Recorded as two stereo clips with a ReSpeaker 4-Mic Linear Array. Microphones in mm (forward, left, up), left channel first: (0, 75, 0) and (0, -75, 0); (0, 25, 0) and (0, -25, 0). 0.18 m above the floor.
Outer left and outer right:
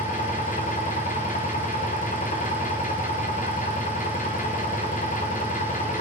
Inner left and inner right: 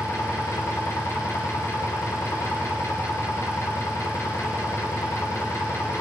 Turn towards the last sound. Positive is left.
turn(degrees=65)  # may be behind; listen again after turning